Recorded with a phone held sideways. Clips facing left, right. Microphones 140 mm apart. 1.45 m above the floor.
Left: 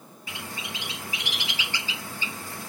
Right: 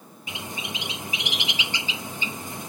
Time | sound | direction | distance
0.3 | a bird | 20° right (ahead or behind) | 0.8 m